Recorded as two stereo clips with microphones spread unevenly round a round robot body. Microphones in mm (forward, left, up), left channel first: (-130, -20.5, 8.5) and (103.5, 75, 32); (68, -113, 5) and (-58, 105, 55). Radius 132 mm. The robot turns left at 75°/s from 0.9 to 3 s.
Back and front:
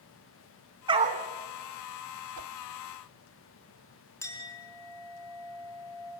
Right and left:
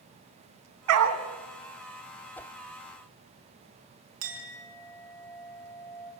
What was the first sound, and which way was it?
A dog barking, 95° left.